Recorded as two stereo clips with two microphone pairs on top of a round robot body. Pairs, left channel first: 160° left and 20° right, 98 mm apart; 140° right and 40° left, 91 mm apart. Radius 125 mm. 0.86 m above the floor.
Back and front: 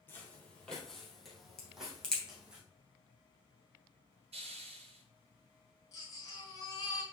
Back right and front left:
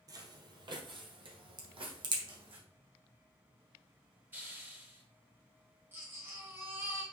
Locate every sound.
0.1 s footsteps: 90° left, 1.4 m; by 2.6 s 60° left, 3 m
1.6 s a crack: 75° left, 2.5 m
4.3 s a hiss: 40° right, 1.0 m
5.9 s a baby crying: 105° left, 3.5 m